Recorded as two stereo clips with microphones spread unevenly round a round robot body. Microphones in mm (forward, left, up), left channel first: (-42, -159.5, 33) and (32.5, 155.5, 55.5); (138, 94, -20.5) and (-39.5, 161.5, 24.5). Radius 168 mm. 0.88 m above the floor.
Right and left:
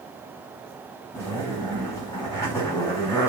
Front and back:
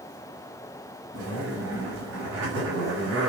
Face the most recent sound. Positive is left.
turn(degrees=175)